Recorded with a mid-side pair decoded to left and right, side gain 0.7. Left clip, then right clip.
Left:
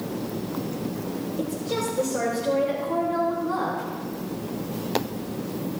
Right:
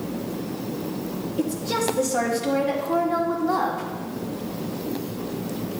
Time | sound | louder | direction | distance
1.4 | a woman speaking | right 4 dB | 45° right | 4 m